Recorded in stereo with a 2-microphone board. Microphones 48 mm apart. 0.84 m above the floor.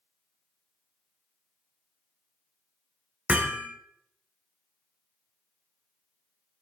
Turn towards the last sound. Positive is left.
turn(degrees=-30)  # may be behind; listen again after turning